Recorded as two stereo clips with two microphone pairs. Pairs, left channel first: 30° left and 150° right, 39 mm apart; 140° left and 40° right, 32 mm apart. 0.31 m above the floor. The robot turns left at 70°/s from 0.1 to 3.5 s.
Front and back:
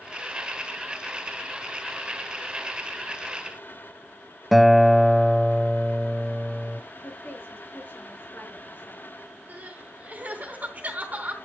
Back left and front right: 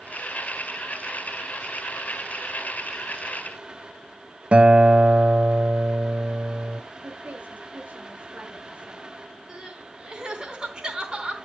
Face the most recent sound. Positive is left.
turn(degrees=-100)